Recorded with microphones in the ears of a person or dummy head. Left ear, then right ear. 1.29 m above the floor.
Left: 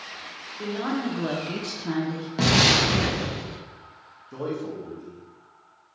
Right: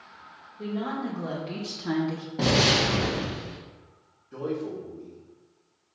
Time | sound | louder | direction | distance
0.6 | a woman speaking | left 3 dB | 65° left (ahead or behind) | 1.1 m
2.4 | an explosion | left 3 dB | 70° left (ahead or behind) | 1.0 m
4.3 | a man speaking | left 1 dB | 60° left (ahead or behind) | 1.2 m